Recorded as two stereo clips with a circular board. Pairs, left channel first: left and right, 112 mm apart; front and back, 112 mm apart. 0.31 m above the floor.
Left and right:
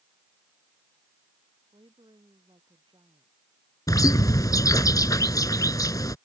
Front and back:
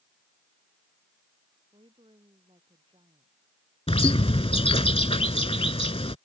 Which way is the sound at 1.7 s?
135° right.